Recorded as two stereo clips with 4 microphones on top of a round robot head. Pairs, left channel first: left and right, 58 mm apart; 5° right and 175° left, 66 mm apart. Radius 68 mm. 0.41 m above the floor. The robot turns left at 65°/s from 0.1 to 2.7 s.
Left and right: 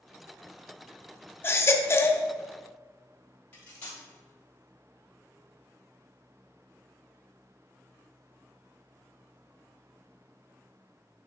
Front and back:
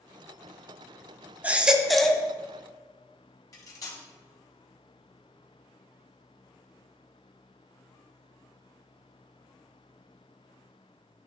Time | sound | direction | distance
1.4 | a baby crying | 120° left | 0.7 m
3.5 | cutlery clinking | 25° left | 1.7 m